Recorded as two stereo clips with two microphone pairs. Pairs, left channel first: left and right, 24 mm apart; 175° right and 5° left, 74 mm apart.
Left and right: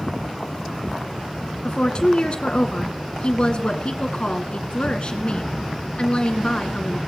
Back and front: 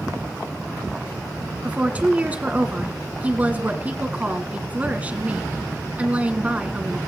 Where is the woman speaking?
70° left, 1.9 m.